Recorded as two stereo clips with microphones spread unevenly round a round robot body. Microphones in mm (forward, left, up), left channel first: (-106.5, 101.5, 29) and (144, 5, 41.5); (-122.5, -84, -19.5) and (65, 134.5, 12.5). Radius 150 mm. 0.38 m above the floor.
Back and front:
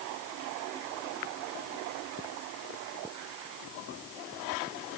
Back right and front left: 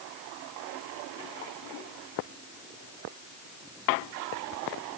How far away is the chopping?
I don't hear chopping.